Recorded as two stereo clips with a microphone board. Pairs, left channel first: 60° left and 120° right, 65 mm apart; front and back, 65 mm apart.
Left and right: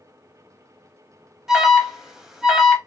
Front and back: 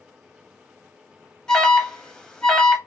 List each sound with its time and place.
1.5 s an alarm: 60° right, 0.6 m